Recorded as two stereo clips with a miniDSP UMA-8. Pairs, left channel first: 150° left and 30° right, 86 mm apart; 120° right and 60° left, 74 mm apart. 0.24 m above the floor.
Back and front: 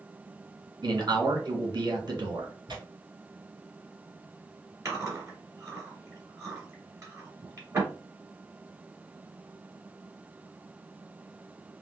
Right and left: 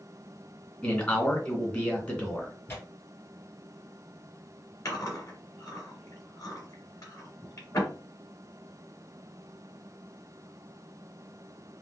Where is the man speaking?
55° right, 2.5 m.